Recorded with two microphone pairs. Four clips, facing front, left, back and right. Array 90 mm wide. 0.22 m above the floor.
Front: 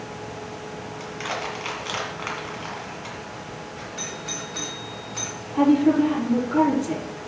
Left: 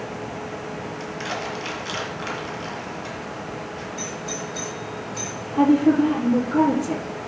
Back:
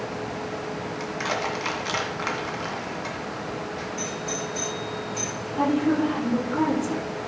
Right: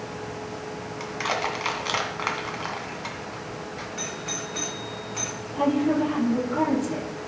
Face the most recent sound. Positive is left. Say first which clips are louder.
# left 6 dB, front 5 dB
turn(degrees=25)